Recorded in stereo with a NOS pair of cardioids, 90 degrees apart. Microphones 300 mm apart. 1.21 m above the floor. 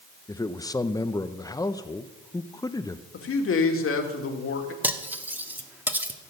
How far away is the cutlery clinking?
About 1.5 m.